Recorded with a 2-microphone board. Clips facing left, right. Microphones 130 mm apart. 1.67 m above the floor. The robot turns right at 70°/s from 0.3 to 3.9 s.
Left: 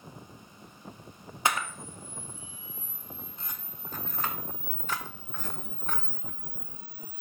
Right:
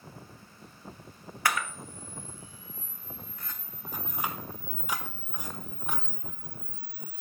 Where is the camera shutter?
20° left (ahead or behind), 0.8 m; by 7.2 s 10° right (ahead or behind), 0.8 m.